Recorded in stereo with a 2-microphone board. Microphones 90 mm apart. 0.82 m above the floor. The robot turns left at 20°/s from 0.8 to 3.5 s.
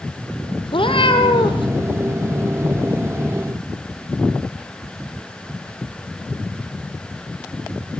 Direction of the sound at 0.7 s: 70° left (ahead or behind).